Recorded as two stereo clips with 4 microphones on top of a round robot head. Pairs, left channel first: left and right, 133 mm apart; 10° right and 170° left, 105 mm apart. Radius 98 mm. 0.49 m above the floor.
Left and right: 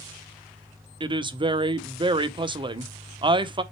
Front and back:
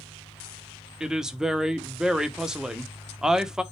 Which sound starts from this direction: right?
A woman speaking, at 1.0 s.